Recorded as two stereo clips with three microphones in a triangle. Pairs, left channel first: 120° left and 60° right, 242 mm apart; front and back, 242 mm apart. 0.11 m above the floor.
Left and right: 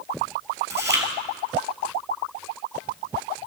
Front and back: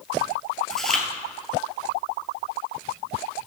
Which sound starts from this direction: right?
Chewing, at 0.7 s.